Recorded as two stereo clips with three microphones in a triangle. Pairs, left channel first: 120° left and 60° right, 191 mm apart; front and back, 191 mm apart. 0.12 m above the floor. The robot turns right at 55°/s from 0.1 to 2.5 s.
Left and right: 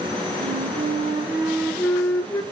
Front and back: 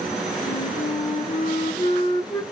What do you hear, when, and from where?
0.4 s a flute: 40° right, 0.6 m; by 2.4 s 70° left, 0.6 m